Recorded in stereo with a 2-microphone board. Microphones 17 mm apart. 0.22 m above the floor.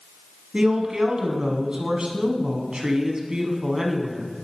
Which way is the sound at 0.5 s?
45° right (ahead or behind).